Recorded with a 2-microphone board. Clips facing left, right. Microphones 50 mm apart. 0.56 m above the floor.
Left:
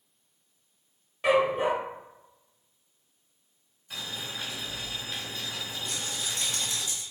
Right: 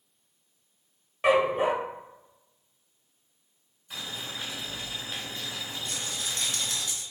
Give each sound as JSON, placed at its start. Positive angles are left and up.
{"t": 1.2, "sound": "a dog barking", "side_deg": -20, "distance_m": 0.7}
{"t": 3.9, "sound": "boiling", "side_deg": -5, "distance_m": 1.9}
{"t": 5.8, "sound": "a rattle", "side_deg": -55, "distance_m": 1.4}